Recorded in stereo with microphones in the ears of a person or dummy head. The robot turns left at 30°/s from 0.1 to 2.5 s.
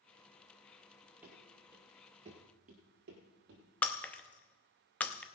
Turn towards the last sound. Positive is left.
turn(degrees=10)  # may be behind; listen again after turning